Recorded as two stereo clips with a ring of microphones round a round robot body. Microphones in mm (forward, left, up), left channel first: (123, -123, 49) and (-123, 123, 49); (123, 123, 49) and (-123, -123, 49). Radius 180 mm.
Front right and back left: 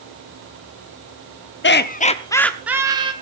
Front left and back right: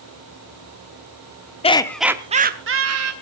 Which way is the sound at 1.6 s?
15° right.